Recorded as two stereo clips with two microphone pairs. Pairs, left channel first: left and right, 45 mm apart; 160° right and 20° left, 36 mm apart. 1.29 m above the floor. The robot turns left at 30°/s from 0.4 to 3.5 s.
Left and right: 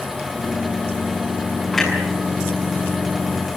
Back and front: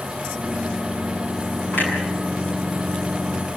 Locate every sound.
1.7 s a clunk: straight behind, 7.5 m; by 1.9 s 170° left, 7.5 m